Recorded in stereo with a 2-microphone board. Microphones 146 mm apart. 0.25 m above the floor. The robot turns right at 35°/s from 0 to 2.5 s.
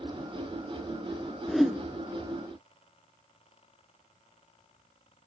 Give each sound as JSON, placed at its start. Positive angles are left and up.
{"t": 1.5, "sound": "a whoosh", "side_deg": 0, "distance_m": 0.6}